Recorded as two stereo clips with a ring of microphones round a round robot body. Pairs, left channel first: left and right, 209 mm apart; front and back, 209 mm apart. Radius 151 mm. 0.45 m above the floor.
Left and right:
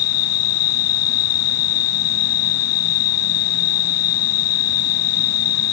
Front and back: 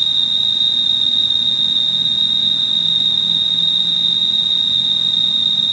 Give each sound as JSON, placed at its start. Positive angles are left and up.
{"t": 0.0, "sound": "an insect", "azimuth_deg": 90, "distance_m": 1.2}